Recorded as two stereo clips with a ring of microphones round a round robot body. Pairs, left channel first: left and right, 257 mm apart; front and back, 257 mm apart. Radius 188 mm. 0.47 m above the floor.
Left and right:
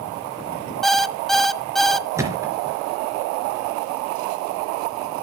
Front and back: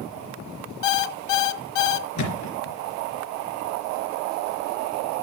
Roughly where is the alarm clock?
Ahead.